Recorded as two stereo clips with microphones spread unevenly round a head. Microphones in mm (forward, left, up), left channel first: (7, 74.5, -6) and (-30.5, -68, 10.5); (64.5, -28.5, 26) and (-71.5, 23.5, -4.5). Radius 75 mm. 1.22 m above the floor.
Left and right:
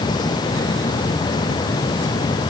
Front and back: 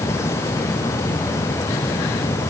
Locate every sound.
Only background noise.